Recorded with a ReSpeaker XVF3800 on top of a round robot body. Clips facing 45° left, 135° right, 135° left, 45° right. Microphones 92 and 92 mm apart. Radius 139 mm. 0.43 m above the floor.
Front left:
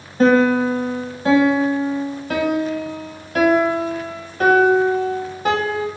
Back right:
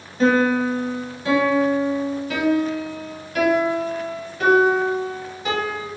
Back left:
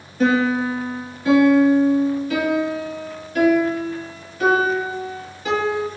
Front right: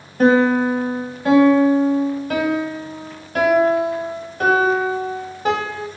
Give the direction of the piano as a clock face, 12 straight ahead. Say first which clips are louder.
Front left 3 dB, front right 4 dB; 12 o'clock.